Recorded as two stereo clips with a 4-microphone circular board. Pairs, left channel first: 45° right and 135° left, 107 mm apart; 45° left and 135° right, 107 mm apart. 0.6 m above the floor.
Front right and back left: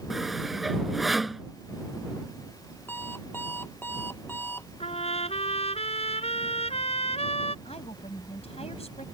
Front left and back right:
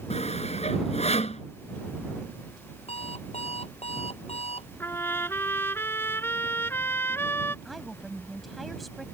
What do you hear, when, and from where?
0.1 s sawing: 45° left
2.9 s an alarm clock: 25° left
4.8 s a trumpet: 25° right
7.7 s a woman speaking: 45° right